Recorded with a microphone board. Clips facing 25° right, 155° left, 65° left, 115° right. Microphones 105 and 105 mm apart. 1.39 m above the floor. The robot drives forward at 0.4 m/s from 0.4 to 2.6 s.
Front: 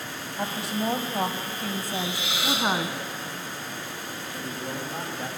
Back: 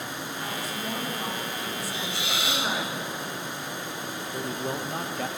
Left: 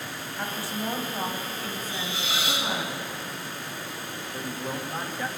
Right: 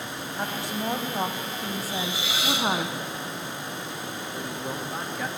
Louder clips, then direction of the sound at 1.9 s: Front 2 dB, right 2 dB; 170° left.